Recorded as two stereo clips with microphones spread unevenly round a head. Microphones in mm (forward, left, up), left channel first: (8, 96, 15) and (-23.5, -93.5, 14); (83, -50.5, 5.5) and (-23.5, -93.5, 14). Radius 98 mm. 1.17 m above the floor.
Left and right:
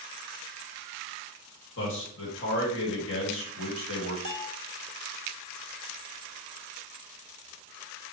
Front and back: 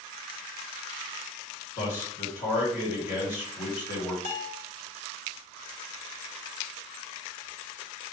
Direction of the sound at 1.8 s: 55° left.